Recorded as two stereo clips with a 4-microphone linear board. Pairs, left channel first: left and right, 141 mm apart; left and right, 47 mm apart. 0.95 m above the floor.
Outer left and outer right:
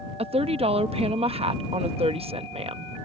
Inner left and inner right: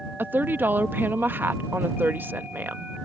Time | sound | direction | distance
0.2 | a woman speaking | 45° right (ahead or behind) | ?